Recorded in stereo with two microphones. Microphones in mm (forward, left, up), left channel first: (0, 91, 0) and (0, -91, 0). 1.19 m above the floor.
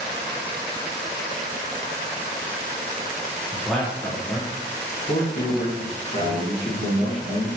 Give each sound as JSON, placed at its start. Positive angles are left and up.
{"t": 3.5, "sound": "a man speaking", "side_deg": -5, "distance_m": 0.7}
{"t": 6.2, "sound": "a man speaking", "side_deg": 65, "distance_m": 1.4}